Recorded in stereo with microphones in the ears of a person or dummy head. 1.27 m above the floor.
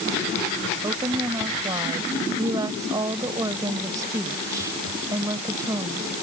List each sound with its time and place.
0.8 s a woman speaking: 20° right (ahead or behind)